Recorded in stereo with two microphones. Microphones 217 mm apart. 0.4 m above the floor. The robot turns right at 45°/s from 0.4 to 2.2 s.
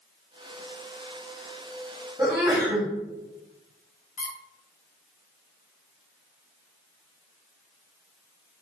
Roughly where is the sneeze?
Centre.